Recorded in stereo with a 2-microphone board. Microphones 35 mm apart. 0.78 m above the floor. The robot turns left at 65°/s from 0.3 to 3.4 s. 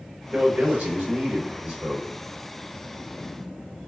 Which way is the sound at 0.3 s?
50° right.